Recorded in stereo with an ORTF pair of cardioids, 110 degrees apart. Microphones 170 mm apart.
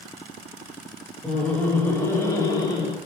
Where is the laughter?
5° left, 2 m; by 3.0 s 30° left, 1.9 m.